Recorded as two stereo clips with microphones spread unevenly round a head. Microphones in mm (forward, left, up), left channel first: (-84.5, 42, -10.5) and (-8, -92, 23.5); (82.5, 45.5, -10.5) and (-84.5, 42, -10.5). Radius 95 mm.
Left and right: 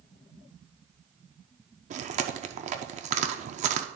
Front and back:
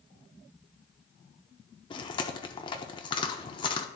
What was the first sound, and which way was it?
Chewing, 60° right.